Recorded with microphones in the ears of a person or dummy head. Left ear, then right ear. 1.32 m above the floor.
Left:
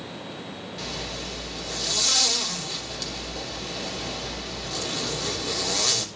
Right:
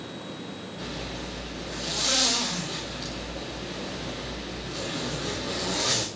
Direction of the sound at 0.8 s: 70° left (ahead or behind).